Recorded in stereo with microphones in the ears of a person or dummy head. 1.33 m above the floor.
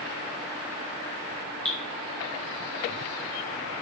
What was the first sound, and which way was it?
Dripping, centre (ahead or behind).